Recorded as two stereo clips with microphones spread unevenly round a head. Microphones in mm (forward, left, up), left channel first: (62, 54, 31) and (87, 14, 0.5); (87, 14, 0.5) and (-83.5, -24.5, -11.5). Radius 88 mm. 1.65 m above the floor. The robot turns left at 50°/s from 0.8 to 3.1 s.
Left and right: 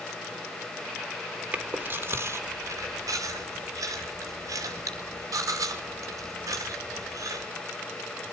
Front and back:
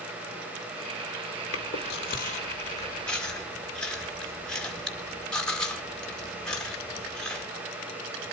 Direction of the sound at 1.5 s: 5° left.